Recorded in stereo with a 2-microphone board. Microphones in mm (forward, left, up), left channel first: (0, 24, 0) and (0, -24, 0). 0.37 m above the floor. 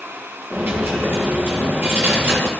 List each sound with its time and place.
0.5 s a dropped coin: 50° right (ahead or behind), 4 m